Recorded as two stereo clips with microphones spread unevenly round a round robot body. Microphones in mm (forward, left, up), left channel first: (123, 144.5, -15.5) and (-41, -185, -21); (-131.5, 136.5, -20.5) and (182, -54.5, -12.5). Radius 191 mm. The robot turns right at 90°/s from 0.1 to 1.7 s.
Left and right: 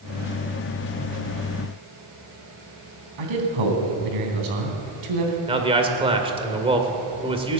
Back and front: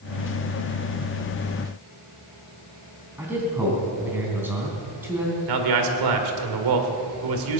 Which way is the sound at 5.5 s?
45° right.